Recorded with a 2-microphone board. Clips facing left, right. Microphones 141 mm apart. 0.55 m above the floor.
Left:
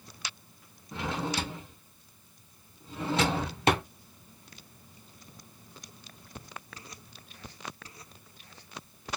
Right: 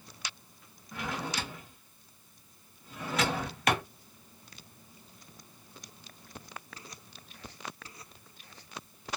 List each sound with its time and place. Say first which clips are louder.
0.9 s a drawer: left 4 dB; 25° left (ahead or behind), 1.0 m